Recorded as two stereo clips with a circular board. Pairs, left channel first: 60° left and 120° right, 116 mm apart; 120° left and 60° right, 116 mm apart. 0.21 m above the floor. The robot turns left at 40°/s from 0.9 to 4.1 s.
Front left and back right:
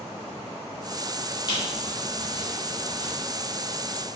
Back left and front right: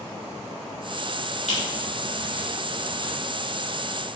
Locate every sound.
1.5 s a squeak: 110° left, 1.9 m; by 3.1 s 45° left, 1.9 m